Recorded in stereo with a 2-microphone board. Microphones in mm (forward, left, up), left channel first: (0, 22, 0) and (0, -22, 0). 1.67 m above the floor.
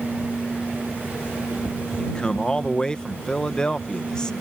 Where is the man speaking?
20° left (ahead or behind).